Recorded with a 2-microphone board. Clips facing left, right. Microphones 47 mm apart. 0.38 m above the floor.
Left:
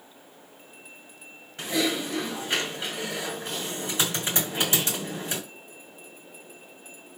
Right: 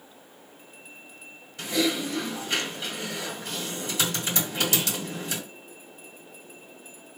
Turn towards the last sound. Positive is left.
turn(degrees=30)  # may be behind; listen again after turning